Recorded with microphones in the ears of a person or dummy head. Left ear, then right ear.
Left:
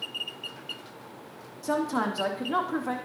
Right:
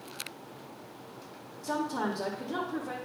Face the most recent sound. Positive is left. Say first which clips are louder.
# left 4 dB
turn(degrees=55)  # may be behind; listen again after turning